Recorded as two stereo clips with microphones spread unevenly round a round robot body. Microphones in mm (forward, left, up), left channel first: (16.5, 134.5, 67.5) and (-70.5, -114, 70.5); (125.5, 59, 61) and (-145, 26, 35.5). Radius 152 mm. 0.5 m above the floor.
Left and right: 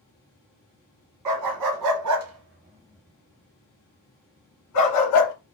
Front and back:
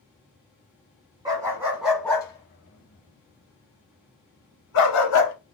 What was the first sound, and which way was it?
A dog barking, 95° right.